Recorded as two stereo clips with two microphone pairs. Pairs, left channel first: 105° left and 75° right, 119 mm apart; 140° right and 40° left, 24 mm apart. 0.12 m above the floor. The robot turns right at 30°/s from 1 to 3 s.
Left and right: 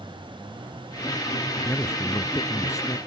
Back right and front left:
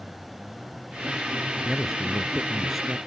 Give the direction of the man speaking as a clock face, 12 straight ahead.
9 o'clock.